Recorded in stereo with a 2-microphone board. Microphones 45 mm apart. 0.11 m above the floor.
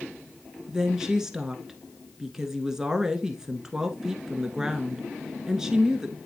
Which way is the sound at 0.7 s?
10° right (ahead or behind).